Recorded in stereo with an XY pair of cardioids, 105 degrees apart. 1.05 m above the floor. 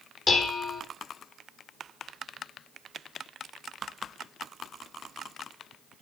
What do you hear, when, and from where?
0.3 s dishes clattering: 35° left, 1.8 m